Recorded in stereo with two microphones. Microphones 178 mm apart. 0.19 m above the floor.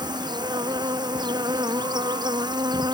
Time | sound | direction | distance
0.0 | an insect | 25° right (ahead or behind) | ?